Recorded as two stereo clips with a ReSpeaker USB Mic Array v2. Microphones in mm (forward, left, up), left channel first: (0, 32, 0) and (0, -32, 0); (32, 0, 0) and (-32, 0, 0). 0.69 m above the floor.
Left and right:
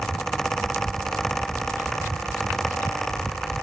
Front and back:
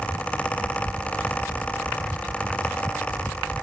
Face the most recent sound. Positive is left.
No sound to turn to.